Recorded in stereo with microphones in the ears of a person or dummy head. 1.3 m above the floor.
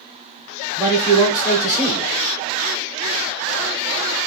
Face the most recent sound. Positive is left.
turn(degrees=5)  # may be behind; listen again after turning